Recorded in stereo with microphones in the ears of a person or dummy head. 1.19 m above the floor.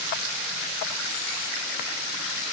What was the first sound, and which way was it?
Only background noise.